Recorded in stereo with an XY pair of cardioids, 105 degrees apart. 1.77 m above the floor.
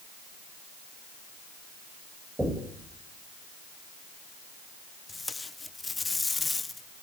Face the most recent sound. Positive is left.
turn(degrees=20)